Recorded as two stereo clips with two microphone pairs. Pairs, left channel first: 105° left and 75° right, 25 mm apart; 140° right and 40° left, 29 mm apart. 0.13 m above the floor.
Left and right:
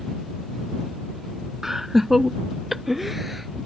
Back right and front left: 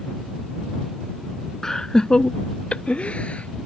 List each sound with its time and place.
1.6 s laughter: 115° right; by 3.7 s 155° right